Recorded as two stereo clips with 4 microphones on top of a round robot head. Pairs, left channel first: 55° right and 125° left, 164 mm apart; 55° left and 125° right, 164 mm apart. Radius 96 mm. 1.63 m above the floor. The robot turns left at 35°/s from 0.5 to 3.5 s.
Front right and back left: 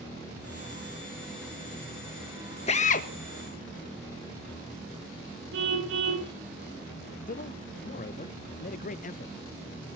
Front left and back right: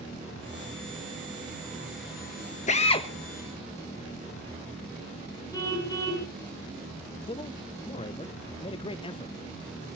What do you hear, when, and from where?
2.7 s a drill: straight ahead, 1.3 m; by 3.1 s 10° right, 1.3 m
5.5 s a car horn: 120° left, 8 m
7.3 s a man speaking: 10° right, 0.6 m